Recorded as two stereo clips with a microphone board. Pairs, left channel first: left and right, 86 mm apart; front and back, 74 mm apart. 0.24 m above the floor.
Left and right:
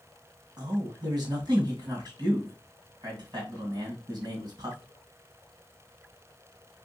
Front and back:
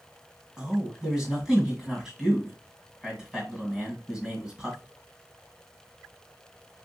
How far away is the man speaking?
About 2 m.